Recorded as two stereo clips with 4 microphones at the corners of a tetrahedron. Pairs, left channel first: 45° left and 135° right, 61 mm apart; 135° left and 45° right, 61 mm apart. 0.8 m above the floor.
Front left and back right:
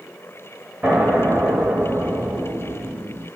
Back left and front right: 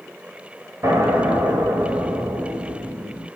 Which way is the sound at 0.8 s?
70° right.